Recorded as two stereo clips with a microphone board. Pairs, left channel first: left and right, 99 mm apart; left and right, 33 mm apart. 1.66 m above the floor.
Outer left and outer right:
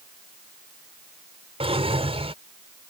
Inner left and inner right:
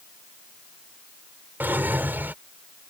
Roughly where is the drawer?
Right.